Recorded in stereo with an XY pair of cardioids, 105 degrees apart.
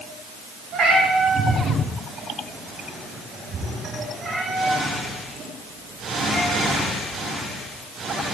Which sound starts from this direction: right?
A cat meowing, at 0.7 s.